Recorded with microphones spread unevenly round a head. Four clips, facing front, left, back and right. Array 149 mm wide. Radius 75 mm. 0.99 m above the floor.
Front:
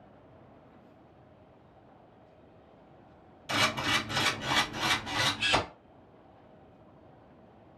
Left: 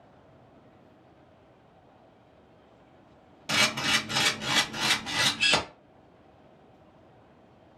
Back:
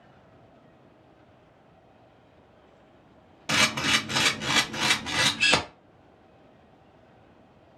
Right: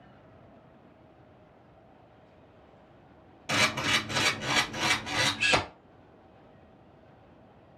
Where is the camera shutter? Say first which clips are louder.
Even, back 3 dB; 170° left, 0.8 m.